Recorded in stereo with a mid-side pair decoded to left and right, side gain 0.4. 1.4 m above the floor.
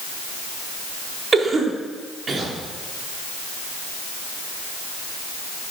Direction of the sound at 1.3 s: 40° right.